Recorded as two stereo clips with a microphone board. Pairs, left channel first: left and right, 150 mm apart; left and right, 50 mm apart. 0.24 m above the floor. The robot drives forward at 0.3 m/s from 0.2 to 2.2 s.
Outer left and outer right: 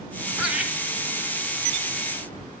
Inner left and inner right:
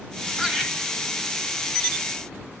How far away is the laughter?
About 1.3 m.